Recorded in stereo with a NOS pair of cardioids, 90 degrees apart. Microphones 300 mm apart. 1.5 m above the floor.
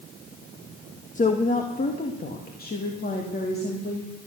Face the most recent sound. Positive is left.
turn(degrees=35)